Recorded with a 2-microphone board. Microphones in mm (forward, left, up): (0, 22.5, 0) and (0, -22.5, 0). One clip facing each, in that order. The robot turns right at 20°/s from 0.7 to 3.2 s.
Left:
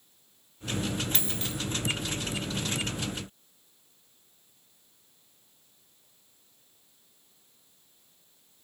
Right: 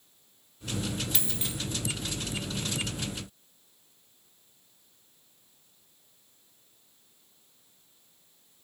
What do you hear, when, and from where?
1.1 s a dropped coin: 5° right (ahead or behind), 1.2 m; by 1.6 s 10° right (ahead or behind), 1.2 m